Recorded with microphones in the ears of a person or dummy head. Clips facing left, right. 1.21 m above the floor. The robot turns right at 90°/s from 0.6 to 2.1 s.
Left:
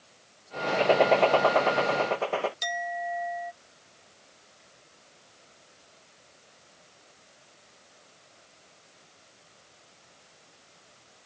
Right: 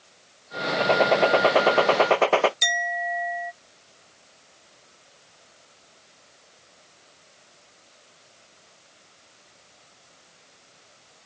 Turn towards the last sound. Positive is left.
turn(degrees=-30)  # may be behind; listen again after turning